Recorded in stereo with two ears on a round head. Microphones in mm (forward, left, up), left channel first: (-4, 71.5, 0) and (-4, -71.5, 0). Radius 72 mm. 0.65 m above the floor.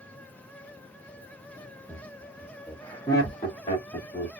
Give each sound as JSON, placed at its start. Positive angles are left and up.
{"t": 1.9, "sound": "laughter", "side_deg": -10, "distance_m": 1.2}